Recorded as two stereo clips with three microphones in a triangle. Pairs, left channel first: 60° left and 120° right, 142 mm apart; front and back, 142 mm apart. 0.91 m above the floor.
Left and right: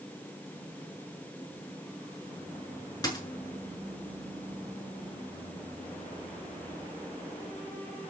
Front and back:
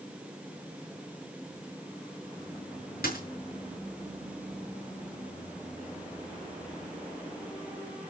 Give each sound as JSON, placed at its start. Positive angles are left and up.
{"t": 3.0, "sound": "a dropped coin", "azimuth_deg": -5, "distance_m": 6.0}